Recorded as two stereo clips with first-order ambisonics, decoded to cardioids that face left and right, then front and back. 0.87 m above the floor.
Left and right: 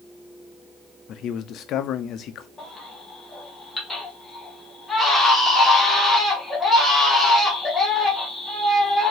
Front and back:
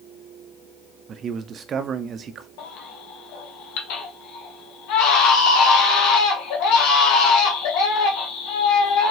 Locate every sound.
1.1 s a man speaking: 125° left, 0.5 m
2.6 s a baby crying: 10° left, 1.5 m